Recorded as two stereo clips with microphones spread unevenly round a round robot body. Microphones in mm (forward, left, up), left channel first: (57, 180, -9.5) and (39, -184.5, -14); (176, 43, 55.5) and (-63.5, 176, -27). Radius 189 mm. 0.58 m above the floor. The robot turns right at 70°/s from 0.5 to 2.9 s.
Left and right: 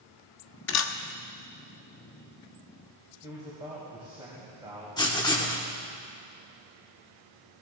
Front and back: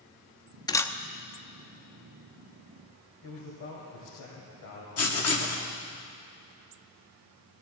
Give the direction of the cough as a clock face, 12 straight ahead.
I don't hear a cough.